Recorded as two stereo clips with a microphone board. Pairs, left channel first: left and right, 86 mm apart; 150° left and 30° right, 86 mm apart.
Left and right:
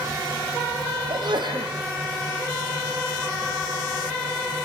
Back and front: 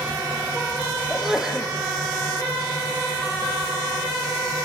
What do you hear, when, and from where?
1.1 s a sneeze: 115° right, 4 m